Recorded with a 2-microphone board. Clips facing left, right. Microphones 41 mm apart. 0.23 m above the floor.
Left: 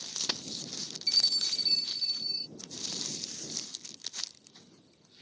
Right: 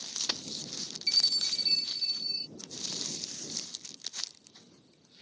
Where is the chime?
25° right (ahead or behind).